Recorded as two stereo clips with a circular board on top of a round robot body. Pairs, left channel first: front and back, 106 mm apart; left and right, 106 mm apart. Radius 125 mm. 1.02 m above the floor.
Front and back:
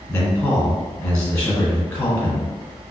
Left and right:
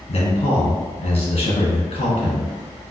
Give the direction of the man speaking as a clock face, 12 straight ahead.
10 o'clock.